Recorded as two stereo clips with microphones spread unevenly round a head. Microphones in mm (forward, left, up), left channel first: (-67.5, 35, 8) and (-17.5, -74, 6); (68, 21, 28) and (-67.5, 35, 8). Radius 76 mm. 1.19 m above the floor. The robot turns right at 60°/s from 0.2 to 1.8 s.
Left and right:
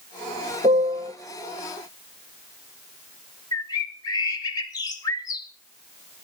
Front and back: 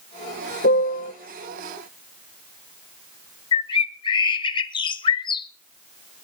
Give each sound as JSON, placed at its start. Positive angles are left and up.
{"t": 0.6, "sound": "a piano", "azimuth_deg": -5, "distance_m": 1.2}
{"t": 3.5, "sound": "a bird", "azimuth_deg": 50, "distance_m": 1.0}